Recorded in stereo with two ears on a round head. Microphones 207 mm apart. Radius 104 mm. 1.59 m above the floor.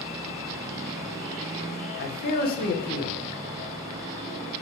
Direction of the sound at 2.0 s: 40° left (ahead or behind).